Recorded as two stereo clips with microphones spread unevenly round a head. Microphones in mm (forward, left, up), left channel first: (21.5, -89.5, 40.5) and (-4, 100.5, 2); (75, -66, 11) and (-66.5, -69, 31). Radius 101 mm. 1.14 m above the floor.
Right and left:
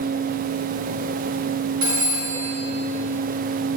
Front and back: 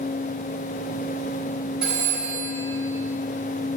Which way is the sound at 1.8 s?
100° left.